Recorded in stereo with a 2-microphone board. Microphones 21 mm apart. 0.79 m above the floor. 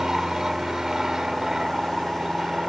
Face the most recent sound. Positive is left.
turn(degrees=-25)  # may be behind; listen again after turning